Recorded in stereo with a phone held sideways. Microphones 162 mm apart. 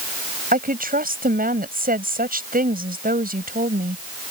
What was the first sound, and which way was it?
A woman speaking, 65° right (ahead or behind).